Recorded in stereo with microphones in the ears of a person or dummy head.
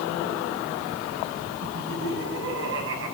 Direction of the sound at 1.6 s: 70° right (ahead or behind).